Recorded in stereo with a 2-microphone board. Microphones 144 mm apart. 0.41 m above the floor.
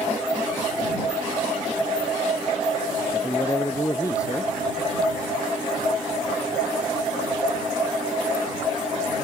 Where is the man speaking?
20° left (ahead or behind).